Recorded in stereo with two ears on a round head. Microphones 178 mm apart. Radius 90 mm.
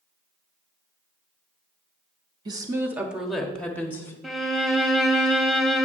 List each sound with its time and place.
2.5 s a woman speaking: 20° right (ahead or behind), 1.0 m; by 4.1 s 15° left (ahead or behind), 1.4 m
4.2 s a violin: centre (ahead or behind), 0.9 m